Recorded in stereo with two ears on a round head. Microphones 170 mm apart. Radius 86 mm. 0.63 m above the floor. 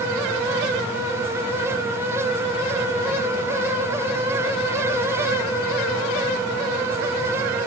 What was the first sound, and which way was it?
Only background noise.